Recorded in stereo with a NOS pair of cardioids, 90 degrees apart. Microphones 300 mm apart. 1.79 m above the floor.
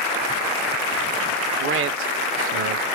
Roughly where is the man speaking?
Ahead right.